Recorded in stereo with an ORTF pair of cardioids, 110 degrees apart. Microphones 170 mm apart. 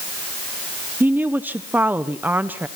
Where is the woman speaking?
10° right, 1.0 m.